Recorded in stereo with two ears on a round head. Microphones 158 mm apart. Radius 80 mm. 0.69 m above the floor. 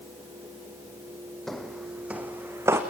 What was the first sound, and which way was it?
Footsteps, centre (ahead or behind).